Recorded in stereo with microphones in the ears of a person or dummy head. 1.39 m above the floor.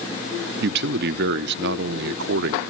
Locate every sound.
0.6 s a man speaking: 65° right (ahead or behind), 0.8 m